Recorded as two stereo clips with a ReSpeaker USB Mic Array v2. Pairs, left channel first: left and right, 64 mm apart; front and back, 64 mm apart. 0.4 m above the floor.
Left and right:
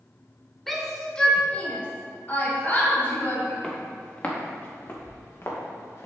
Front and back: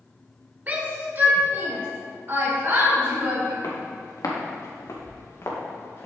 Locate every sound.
0.7 s a shout: 175° left, 1.6 m; by 3.5 s 135° left, 3.5 m
3.6 s footsteps: 15° left, 3 m; by 6.1 s 50° left, 3 m